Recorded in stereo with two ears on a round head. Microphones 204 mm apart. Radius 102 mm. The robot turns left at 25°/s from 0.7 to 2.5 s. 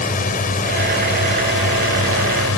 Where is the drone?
140° left; by 2.6 s 95° left.